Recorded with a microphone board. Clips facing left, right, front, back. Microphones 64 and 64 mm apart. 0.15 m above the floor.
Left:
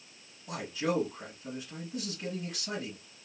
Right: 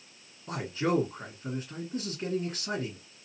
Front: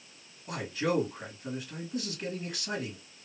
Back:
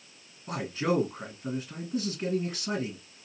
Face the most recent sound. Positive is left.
turn(degrees=-130)